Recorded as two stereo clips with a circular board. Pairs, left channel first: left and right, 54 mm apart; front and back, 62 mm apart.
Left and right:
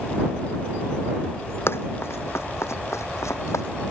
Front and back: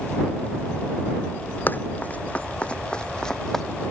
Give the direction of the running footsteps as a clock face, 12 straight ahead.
10 o'clock.